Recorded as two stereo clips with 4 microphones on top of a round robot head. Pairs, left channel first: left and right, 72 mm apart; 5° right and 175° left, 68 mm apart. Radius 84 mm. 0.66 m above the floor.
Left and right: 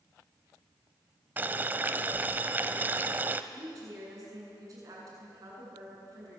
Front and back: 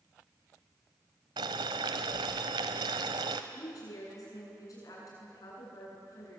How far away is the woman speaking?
About 7.5 m.